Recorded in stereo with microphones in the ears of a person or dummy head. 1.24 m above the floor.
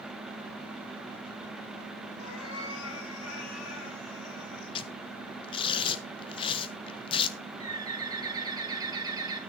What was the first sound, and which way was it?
A cat meowing, 75° left (ahead or behind).